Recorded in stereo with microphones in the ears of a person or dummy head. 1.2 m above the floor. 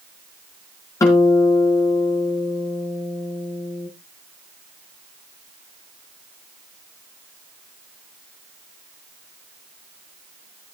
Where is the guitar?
20° left (ahead or behind), 4.5 m.